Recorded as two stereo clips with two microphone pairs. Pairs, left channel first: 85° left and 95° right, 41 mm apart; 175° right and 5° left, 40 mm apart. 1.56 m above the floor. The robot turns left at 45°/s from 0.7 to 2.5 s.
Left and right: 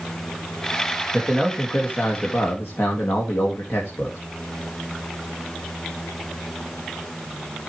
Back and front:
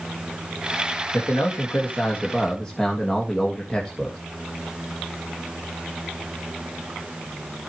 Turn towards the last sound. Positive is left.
turn(degrees=105)